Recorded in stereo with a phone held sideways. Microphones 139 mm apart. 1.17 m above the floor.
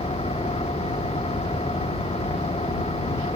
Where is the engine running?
45° left (ahead or behind).